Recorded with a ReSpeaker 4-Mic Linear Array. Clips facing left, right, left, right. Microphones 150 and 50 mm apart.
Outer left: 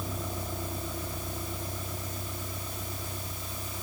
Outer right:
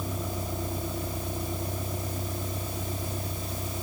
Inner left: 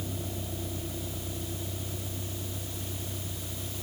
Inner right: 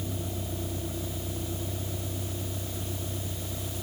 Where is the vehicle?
10° right (ahead or behind); by 3.8 s 20° right (ahead or behind).